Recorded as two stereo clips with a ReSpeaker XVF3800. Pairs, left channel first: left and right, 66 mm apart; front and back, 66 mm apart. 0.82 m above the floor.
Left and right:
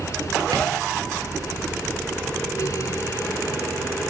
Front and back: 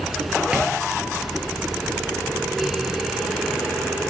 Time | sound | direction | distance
0.5 | tapping | 105° right | 9.5 m